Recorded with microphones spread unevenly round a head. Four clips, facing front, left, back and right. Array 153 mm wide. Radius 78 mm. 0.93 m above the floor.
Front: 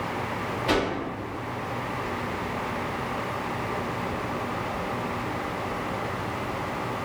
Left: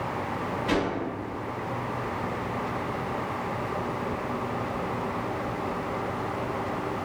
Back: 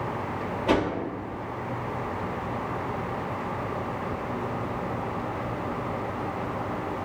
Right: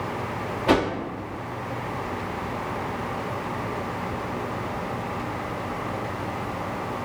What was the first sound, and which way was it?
A whoosh, 100° right.